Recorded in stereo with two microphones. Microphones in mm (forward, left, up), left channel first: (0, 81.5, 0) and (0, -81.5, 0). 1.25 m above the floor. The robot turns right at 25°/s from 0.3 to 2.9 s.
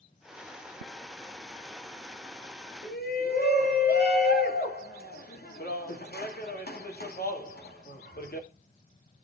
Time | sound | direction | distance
2.8 | a shout | 80° left | 2 m